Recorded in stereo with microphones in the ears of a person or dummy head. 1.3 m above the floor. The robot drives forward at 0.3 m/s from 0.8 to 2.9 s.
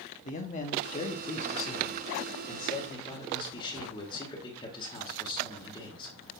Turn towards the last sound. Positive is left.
turn(degrees=25)  # may be behind; listen again after turning